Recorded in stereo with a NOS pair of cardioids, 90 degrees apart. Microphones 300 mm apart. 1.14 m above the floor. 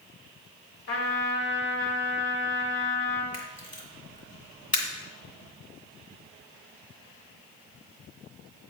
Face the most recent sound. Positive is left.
turn(degrees=25)